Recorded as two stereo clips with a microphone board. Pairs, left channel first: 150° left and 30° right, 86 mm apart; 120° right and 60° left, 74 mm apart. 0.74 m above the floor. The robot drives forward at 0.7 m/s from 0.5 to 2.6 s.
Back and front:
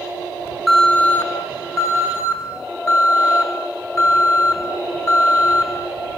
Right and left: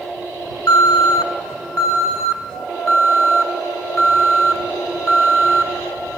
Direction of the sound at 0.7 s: 120° right.